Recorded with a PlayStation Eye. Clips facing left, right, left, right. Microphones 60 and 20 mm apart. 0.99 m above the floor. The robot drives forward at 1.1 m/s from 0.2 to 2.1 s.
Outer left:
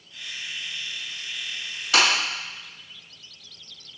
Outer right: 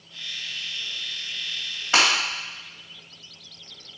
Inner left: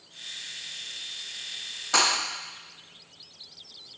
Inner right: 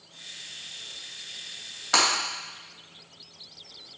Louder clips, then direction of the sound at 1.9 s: Even, inner right 1 dB; 30° right (ahead or behind).